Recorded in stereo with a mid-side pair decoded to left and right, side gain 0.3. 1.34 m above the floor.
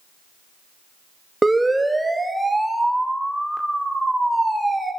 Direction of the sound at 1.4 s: 20° right.